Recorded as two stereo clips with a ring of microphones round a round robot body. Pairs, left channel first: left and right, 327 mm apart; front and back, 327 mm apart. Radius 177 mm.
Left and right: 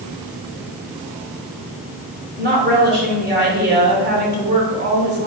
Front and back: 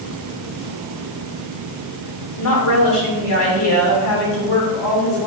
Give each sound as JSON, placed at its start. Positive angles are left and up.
{"t": 2.4, "sound": "a woman speaking", "azimuth_deg": -30, "distance_m": 3.0}